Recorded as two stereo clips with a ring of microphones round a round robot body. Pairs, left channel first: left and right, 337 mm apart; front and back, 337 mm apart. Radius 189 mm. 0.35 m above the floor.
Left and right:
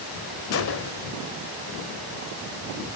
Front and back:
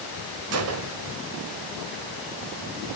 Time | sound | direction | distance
0.5 | a gunshot | 140° left | 1.3 m